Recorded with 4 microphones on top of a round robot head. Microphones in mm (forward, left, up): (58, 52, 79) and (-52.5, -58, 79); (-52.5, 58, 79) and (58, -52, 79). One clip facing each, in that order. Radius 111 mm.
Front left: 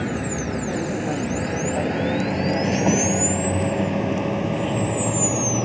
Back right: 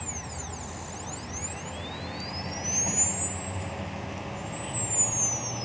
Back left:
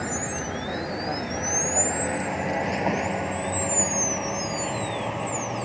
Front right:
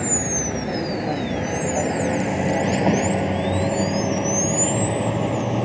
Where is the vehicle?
25° left; by 5.7 s 10° left.